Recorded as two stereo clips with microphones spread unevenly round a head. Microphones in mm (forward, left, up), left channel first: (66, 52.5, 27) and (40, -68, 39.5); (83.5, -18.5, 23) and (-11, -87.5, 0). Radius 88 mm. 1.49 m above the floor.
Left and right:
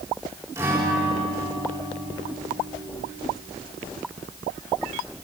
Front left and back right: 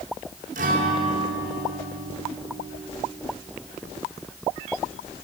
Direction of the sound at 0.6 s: 175° right.